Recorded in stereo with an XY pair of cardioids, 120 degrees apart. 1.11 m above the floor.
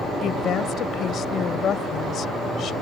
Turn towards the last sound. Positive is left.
turn(degrees=55)